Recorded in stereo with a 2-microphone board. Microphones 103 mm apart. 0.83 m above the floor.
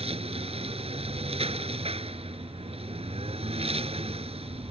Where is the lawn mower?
75° right (ahead or behind).